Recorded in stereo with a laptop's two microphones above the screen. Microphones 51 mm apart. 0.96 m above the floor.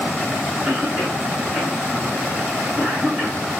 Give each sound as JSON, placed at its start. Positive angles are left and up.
{"t": 0.7, "sound": "a cough", "side_deg": -35, "distance_m": 1.2}